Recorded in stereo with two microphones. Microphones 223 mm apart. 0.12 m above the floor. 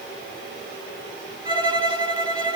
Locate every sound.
1.4 s a violin: 20° right (ahead or behind), 2 m